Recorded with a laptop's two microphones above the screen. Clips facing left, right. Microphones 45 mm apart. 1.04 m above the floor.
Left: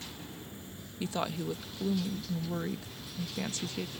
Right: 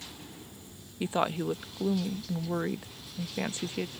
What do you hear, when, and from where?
0.0 s an insect: 30° left (ahead or behind)
1.0 s a woman speaking: 25° right (ahead or behind)